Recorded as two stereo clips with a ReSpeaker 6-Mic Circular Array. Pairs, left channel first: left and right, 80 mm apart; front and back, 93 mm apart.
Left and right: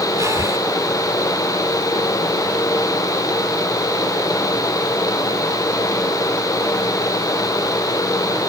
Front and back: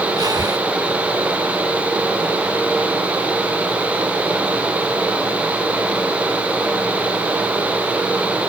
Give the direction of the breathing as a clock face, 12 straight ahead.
5 o'clock.